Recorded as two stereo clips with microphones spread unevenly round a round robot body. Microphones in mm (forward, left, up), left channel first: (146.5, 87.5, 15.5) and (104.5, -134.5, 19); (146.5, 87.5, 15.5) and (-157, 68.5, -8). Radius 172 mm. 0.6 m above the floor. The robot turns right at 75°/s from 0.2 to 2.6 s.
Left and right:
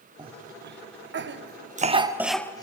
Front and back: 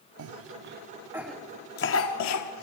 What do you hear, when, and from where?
0.2 s a cough: 170° right, 0.9 m; by 2.6 s 10° left, 0.9 m